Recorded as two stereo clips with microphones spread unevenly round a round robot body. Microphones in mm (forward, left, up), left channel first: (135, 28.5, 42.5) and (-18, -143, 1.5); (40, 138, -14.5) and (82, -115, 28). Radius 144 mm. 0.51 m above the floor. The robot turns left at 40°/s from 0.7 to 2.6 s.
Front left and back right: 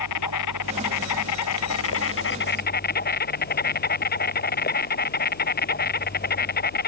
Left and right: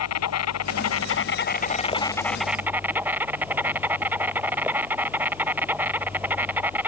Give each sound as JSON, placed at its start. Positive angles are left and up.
{"t": 0.0, "sound": "an insect", "azimuth_deg": 80}